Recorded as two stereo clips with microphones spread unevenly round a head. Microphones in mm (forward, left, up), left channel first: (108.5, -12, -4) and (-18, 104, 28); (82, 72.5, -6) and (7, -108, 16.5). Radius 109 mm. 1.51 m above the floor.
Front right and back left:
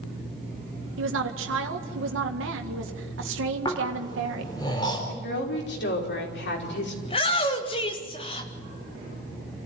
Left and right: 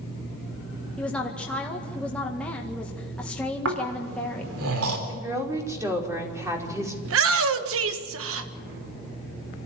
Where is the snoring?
115° right, 4 m.